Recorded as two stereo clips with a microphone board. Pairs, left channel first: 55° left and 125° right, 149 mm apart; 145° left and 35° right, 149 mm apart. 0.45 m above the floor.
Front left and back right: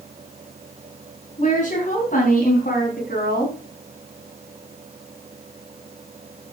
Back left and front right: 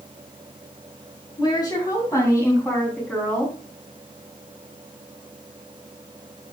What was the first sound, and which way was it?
A woman speaking, 90° left.